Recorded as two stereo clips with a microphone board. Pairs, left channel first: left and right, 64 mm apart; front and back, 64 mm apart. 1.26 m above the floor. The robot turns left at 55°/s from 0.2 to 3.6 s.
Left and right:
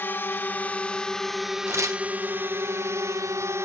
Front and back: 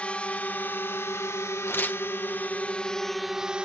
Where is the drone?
55° left; by 3.7 s 110° right.